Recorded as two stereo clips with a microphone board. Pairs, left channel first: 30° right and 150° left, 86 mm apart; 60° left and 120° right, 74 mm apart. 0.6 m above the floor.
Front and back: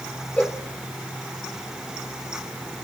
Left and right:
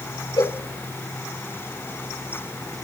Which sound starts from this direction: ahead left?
A cowbell, at 0.4 s.